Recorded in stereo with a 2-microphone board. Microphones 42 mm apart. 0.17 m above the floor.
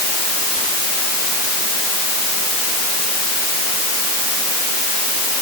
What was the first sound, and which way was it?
Only background noise.